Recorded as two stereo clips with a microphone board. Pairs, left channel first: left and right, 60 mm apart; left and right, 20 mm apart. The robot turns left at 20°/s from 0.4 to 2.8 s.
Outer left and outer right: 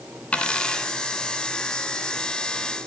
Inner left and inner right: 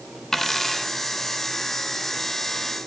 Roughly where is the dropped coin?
Centre.